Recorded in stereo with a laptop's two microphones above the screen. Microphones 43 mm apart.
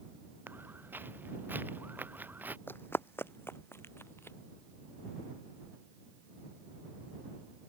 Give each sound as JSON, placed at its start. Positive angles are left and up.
{"t": 0.5, "sound": "footsteps", "side_deg": -55}
{"t": 2.7, "sound": "running footsteps", "side_deg": 55}